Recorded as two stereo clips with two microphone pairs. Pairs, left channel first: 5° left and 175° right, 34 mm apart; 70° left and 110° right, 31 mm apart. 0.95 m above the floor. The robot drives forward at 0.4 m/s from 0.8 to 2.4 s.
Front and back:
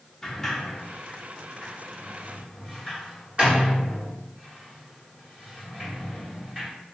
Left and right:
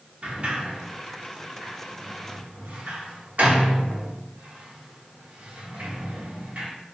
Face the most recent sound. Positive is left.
turn(degrees=-125)